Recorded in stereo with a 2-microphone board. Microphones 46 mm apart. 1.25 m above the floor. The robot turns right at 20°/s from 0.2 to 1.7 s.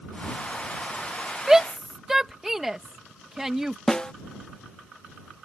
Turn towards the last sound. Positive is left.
turn(degrees=15)  # may be behind; listen again after turning